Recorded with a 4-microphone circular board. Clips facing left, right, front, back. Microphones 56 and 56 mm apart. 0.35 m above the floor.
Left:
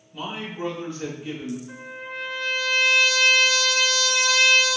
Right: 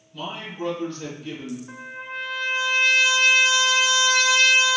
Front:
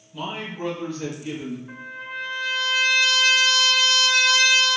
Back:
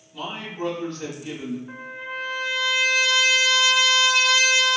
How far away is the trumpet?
About 1.6 m.